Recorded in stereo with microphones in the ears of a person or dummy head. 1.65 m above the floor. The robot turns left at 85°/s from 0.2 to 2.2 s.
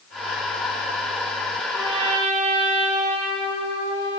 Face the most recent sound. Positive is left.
turn(degrees=-65)